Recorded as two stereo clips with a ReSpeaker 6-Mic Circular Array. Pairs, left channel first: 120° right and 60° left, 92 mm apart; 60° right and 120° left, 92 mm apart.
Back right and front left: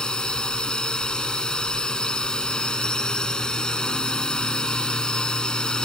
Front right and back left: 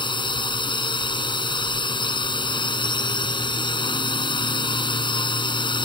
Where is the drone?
40° right.